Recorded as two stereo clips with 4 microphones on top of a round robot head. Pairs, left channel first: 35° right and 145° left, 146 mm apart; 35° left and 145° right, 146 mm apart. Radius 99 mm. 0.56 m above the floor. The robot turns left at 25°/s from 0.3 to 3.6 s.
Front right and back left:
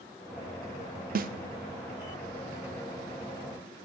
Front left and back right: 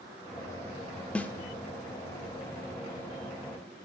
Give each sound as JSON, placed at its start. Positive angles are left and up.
{"t": 1.1, "sound": "a snare drum", "azimuth_deg": 120, "distance_m": 0.5}